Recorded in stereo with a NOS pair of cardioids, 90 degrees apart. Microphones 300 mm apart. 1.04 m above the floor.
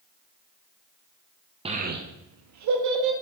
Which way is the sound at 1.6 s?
20° right.